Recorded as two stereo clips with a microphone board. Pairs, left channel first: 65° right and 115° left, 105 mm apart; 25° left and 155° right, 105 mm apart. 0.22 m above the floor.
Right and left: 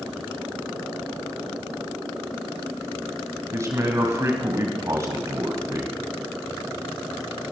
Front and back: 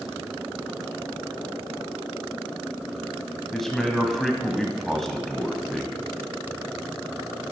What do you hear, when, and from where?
3.5 s a man speaking: 105° left, 1.4 m